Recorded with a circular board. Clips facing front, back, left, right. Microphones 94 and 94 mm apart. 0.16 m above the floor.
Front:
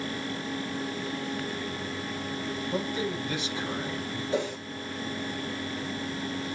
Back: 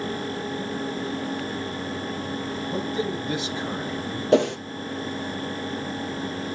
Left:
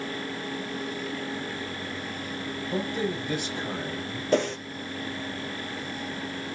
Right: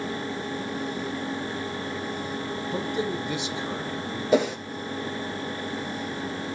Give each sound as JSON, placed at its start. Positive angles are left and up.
{"t": 2.7, "sound": "a man speaking", "azimuth_deg": 125, "distance_m": 5.5}
{"t": 4.3, "sound": "a whoosh", "azimuth_deg": -175, "distance_m": 1.7}